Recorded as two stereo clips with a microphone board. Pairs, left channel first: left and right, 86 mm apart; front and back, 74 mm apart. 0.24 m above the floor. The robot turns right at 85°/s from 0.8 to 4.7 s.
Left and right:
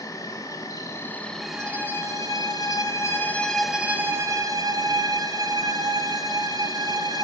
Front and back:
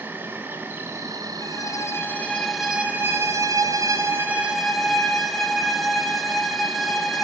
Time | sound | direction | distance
0.0 | an insect | 125° left | 1.4 m
1.4 | a violin | 10° right | 1.4 m